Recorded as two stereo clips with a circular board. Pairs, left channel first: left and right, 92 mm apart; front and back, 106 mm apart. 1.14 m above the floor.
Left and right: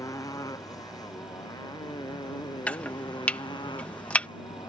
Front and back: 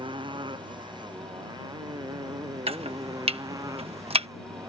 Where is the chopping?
165° left.